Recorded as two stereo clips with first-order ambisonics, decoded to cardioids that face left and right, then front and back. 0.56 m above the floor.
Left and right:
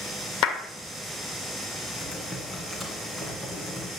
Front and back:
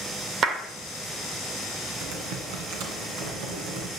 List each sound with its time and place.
0.4 s a clap: 130° left, 1.6 m
2.0 s typing on a keyboard: 175° right, 2 m